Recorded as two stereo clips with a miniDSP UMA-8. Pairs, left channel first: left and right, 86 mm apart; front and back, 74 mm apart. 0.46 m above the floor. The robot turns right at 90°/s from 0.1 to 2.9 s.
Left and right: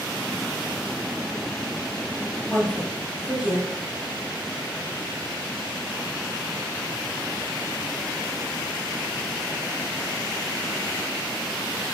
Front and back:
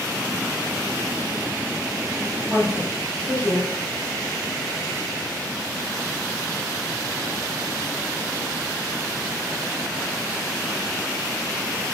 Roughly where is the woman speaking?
Behind.